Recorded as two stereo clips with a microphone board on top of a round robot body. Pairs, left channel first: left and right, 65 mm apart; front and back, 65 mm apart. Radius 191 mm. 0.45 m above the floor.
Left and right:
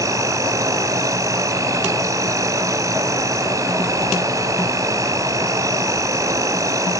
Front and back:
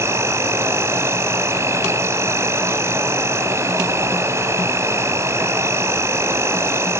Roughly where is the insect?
Behind right.